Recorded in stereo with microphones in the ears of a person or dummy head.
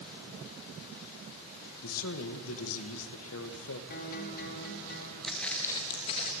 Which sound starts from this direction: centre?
Footsteps, at 5.2 s.